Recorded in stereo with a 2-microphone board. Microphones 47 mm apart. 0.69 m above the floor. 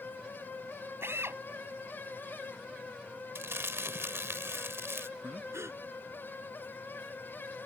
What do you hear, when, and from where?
1.0 s a drill: 65° right (ahead or behind)
3.4 s crumpling: 70° right (ahead or behind)
5.2 s breathing: 80° right